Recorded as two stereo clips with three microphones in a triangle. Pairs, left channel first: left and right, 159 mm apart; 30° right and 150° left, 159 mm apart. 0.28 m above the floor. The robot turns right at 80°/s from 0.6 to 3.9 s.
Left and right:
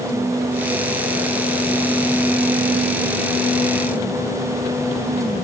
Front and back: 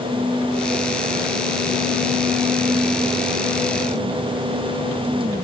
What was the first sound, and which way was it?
Only background noise.